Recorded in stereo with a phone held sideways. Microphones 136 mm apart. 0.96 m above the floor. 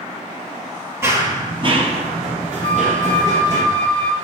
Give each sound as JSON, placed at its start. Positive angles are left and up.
{"t": 1.0, "sound": "running footsteps", "side_deg": -20, "distance_m": 1.2}
{"t": 2.6, "sound": "a flute", "side_deg": -30, "distance_m": 1.9}